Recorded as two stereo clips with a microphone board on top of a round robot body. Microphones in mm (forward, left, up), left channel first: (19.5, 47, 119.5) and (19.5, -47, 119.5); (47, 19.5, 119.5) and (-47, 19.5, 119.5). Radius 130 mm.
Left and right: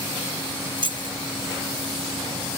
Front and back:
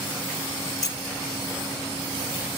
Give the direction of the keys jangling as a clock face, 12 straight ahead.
2 o'clock.